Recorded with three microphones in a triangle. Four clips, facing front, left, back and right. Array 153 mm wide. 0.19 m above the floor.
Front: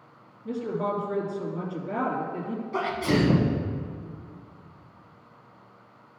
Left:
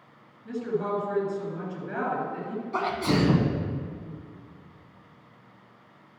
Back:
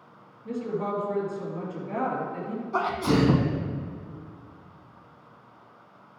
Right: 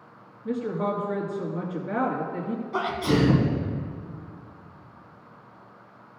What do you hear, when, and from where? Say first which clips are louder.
0.5 s a woman speaking: right 1 dB, front 1 dB; 80° right, 2.5 m
2.7 s a sneeze: right 1 dB, back 1 dB; 170° left, 1.3 m